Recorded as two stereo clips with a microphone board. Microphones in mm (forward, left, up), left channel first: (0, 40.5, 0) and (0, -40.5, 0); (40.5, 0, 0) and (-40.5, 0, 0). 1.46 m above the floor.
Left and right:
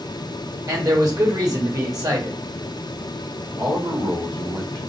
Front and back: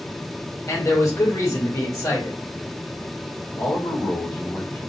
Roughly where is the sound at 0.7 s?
Ahead right.